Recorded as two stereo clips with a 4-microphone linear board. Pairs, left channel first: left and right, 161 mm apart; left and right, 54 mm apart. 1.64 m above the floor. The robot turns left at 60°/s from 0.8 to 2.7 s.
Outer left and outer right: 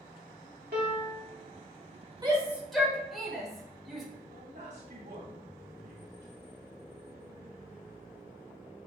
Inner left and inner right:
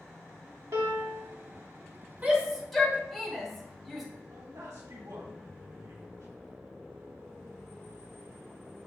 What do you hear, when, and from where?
0.7 s a piano: 75° right (ahead or behind), 1.2 m; by 1.3 s 55° right (ahead or behind), 1.2 m
2.2 s a shout: 30° right (ahead or behind), 1.5 m; by 4.0 s centre (ahead or behind), 1.5 m
4.3 s a man speaking: 85° right, 1.8 m